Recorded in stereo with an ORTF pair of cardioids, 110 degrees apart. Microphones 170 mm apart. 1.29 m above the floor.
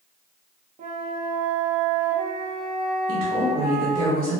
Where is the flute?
45° right, 0.8 m.